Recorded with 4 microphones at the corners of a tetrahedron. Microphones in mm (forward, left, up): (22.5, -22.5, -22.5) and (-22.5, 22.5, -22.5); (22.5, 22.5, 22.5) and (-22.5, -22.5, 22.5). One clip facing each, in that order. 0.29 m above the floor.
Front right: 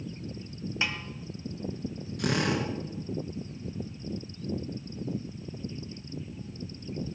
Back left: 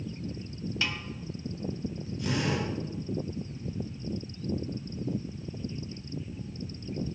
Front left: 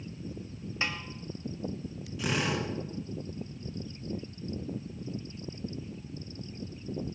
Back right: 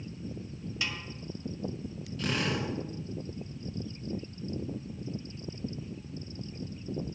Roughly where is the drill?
Ahead right.